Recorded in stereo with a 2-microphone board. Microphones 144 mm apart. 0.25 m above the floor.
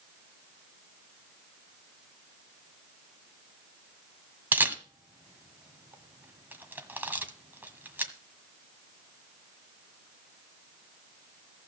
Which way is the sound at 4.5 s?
15° right (ahead or behind).